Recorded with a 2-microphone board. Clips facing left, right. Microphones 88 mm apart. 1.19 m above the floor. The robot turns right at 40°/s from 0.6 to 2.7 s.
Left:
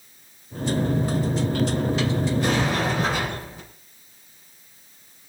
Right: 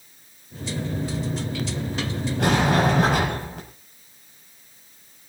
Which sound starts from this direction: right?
A sliding door, at 2.4 s.